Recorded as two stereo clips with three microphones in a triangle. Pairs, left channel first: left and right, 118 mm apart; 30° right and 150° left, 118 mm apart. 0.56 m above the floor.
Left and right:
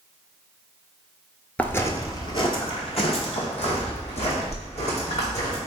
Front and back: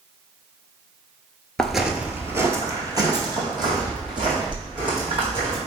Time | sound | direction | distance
1.6 | footsteps | 40° left | 0.5 m